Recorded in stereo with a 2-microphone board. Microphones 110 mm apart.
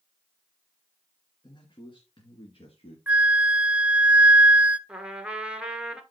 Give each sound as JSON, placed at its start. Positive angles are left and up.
{"t": 1.4, "sound": "a man speaking", "side_deg": 40, "distance_m": 1.8}
{"t": 3.1, "sound": "a flute", "side_deg": -10, "distance_m": 0.7}
{"t": 4.9, "sound": "a trumpet", "side_deg": -10, "distance_m": 1.3}